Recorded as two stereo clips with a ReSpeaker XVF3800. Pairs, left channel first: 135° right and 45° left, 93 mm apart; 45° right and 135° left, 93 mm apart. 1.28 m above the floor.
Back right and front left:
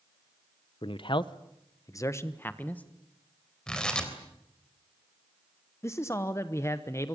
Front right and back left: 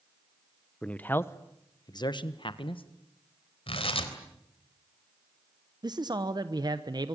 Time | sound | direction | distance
0.8 | a man speaking | 125° right | 1.0 m
3.7 | tearing paper | 55° right | 3.5 m
5.8 | a man speaking | 170° left | 1.1 m